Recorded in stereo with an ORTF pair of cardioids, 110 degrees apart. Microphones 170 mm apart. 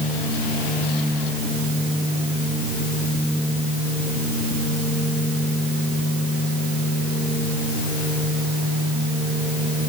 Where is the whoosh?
I don't hear a whoosh.